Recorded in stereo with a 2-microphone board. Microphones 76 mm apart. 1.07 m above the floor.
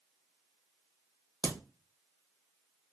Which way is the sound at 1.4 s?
65° left (ahead or behind).